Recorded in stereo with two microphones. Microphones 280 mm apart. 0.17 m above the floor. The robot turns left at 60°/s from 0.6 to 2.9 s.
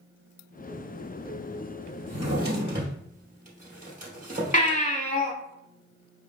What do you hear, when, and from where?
2.1 s a drawer: 70° right (ahead or behind), 2.5 m; by 4.8 s 30° right (ahead or behind), 2.5 m
4.5 s a baby crying: 30° left (ahead or behind), 1.2 m